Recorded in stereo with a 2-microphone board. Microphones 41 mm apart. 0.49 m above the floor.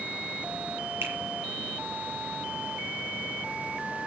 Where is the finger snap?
70° right (ahead or behind), 8 m.